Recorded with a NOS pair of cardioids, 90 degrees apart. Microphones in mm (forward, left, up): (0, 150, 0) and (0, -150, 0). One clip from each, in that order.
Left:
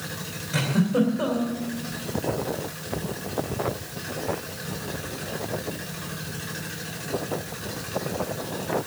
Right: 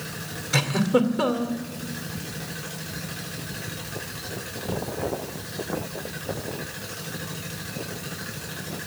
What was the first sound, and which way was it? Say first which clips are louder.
A giggle: right 3 dB; 70° right.